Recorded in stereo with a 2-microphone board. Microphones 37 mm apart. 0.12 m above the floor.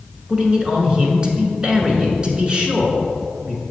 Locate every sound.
0.3 s a man speaking: 25° right (ahead or behind), 1.2 m